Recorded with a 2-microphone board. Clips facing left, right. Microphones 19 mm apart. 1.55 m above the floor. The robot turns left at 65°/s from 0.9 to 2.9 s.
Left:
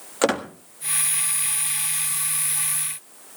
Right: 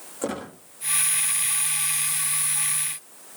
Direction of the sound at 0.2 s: 65° left (ahead or behind).